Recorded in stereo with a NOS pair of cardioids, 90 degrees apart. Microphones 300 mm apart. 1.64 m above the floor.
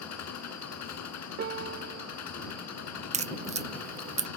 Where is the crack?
25° right.